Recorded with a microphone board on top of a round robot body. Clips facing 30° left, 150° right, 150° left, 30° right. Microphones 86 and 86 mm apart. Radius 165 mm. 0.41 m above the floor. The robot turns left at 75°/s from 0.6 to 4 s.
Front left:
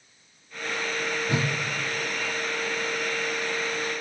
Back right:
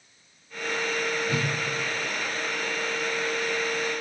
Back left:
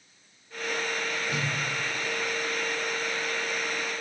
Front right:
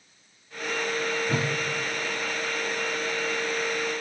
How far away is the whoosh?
About 1.3 m.